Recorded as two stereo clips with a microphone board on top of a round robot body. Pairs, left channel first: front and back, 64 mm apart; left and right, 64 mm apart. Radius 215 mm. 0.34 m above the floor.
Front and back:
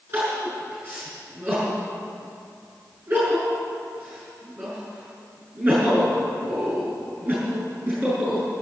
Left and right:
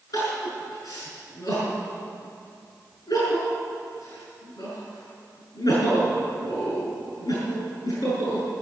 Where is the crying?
115° left, 6 m.